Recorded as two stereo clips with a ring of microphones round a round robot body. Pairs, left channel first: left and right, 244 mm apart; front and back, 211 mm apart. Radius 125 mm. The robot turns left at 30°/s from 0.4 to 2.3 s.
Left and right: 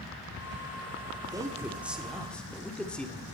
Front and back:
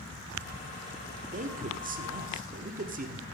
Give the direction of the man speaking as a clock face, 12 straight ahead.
5 o'clock.